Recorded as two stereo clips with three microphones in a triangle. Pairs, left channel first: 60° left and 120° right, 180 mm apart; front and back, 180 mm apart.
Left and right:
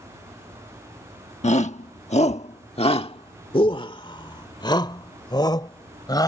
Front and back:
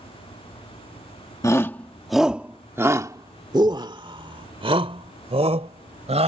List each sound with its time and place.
1.4 s a shout: 60° left; by 6.3 s 130° left